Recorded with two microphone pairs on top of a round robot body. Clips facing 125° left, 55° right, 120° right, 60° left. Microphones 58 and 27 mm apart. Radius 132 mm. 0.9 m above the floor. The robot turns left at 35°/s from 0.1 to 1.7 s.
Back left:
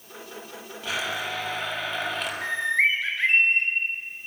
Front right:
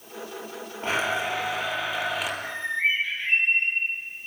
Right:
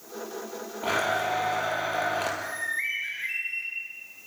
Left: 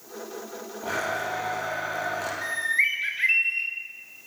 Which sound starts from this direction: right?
A blender, at 0.8 s.